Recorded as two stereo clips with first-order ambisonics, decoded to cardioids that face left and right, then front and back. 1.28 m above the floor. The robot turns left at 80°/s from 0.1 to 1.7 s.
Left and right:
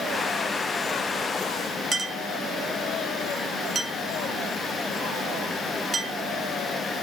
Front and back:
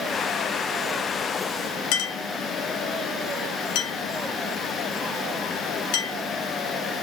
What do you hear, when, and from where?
1.9 s a clink: 20° right, 1.0 m